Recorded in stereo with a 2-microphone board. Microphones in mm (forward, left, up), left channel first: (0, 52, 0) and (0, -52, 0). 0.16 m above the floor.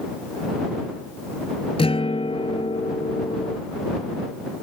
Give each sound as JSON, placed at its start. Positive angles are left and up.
{"t": 1.8, "sound": "a guitar", "side_deg": 65}